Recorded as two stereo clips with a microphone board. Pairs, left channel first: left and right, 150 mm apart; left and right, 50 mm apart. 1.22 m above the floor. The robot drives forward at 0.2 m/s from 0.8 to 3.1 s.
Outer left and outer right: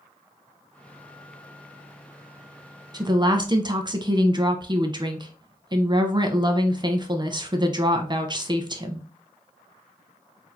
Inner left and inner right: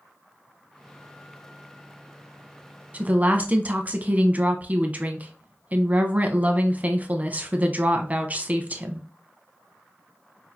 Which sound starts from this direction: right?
A woman speaking, at 2.9 s.